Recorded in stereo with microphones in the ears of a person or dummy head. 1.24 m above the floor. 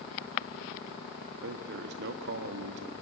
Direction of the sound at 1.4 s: 65° right (ahead or behind).